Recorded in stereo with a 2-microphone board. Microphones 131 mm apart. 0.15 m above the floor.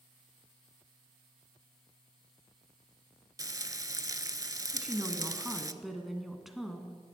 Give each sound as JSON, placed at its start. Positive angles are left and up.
{"t": 3.4, "sound": "frying", "side_deg": -30, "distance_m": 0.6}
{"t": 4.7, "sound": "a woman speaking", "side_deg": 0, "distance_m": 1.7}